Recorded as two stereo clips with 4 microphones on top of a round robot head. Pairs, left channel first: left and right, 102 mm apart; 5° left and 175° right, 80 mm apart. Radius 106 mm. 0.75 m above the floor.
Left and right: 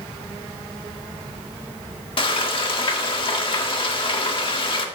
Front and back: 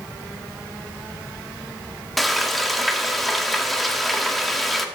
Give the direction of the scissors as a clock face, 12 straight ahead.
I don't hear scissors.